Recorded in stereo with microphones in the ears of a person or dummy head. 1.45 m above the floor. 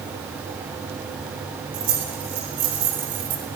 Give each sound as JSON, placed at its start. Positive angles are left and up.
{"t": 1.7, "sound": "keys jangling", "side_deg": -60, "distance_m": 7.5}